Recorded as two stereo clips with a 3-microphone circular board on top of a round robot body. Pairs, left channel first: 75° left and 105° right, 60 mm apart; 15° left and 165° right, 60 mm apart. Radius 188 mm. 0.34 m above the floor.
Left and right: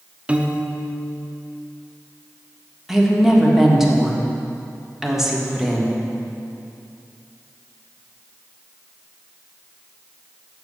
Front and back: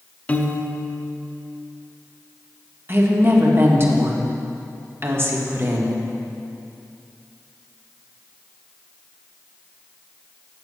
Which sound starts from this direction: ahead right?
A piano, at 0.3 s.